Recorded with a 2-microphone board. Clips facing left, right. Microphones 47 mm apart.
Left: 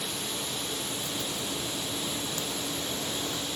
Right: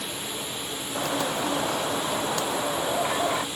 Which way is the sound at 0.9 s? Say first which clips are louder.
Right 8 dB; 85° right.